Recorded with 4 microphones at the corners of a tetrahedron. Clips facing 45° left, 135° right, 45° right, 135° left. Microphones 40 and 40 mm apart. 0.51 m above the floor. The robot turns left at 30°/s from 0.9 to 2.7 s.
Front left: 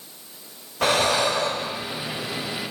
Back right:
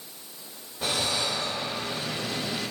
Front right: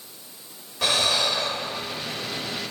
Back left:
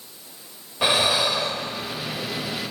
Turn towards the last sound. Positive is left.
turn(degrees=15)